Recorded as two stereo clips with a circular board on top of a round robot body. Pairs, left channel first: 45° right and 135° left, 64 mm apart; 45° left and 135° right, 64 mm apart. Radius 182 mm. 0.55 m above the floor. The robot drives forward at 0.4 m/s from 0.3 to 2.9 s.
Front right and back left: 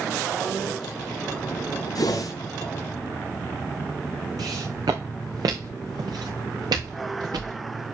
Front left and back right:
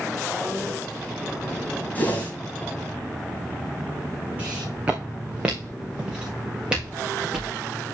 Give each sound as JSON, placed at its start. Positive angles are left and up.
{"t": 1.9, "sound": "a whoosh", "azimuth_deg": -20, "distance_m": 2.5}
{"t": 4.4, "sound": "footsteps", "azimuth_deg": 160, "distance_m": 2.0}